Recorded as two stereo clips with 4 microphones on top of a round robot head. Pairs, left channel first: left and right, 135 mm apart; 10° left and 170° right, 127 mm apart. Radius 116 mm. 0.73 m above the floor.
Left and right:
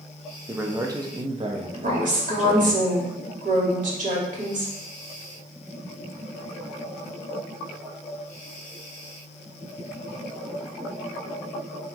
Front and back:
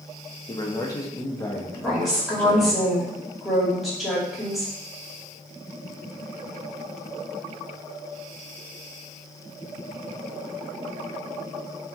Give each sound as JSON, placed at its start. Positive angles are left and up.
{"t": 0.5, "sound": "a man speaking", "azimuth_deg": -20, "distance_m": 0.8}
{"t": 1.8, "sound": "a woman speaking", "azimuth_deg": -85, "distance_m": 2.0}